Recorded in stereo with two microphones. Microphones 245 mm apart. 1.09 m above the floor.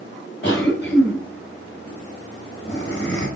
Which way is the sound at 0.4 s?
50° left (ahead or behind).